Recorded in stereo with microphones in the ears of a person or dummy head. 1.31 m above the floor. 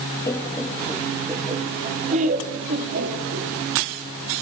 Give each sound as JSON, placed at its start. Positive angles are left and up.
{"t": 0.3, "sound": "laughter", "side_deg": 15, "distance_m": 1.0}